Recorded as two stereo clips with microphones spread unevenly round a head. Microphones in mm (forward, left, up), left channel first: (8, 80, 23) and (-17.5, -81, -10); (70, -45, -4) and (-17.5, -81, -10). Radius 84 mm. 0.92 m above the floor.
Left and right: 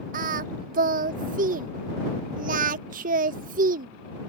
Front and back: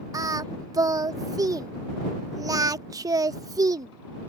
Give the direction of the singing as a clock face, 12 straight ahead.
4 o'clock.